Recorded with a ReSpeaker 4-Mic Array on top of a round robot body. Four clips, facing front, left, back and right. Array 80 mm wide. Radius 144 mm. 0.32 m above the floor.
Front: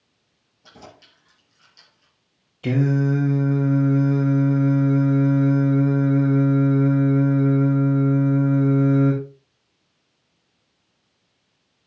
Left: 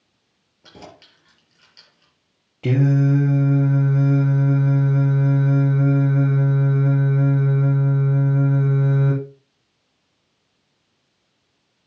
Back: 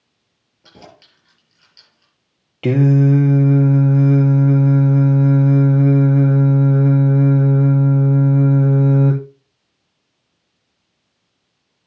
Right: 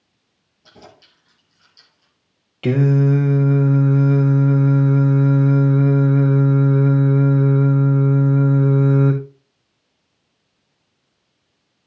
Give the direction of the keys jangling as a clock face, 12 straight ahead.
8 o'clock.